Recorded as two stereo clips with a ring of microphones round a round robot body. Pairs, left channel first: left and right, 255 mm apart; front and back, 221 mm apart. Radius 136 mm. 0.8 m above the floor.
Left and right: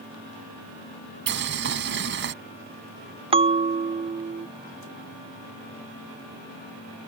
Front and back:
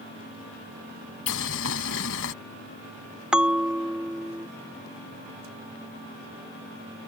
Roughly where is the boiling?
Ahead right.